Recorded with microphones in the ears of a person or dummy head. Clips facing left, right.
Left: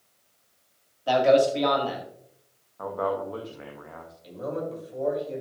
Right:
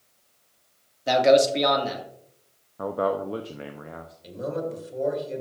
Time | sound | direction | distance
1.1 | a man speaking | 25° right (ahead or behind) | 1.8 m
2.8 | a man speaking | 35° right (ahead or behind) | 0.6 m
4.2 | a man speaking | 30° right (ahead or behind) | 3 m